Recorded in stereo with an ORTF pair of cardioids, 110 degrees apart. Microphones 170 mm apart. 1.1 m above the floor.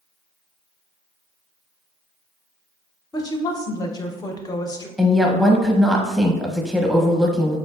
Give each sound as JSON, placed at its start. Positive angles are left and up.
{"t": 3.1, "sound": "a woman speaking", "azimuth_deg": 25, "distance_m": 0.6}
{"t": 5.0, "sound": "a woman speaking", "azimuth_deg": 0, "distance_m": 0.8}